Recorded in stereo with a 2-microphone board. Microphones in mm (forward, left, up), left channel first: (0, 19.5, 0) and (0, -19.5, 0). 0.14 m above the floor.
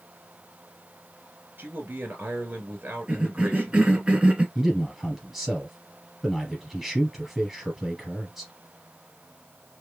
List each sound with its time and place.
1.6 s a man speaking: 55° right (ahead or behind), 2.0 m
3.1 s a cough: 30° right (ahead or behind), 2 m
4.5 s a man speaking: 5° right (ahead or behind), 2.5 m